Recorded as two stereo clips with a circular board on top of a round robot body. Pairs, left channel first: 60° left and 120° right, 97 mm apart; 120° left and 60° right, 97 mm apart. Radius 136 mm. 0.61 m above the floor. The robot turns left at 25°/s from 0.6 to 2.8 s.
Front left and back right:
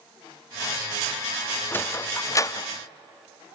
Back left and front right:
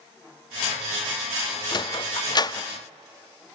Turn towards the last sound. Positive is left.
turn(degrees=90)